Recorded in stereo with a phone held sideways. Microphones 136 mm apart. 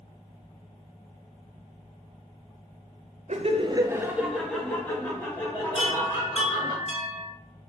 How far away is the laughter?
About 0.5 m.